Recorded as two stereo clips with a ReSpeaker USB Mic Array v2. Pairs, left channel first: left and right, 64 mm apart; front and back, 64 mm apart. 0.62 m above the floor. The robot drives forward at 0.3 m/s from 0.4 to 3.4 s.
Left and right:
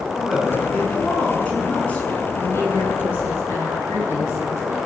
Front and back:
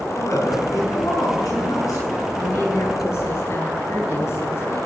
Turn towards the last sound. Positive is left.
turn(degrees=40)